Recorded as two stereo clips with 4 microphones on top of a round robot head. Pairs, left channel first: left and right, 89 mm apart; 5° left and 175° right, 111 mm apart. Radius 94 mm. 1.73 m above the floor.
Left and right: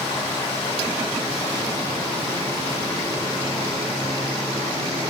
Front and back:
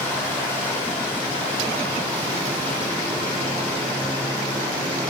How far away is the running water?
About 3.5 m.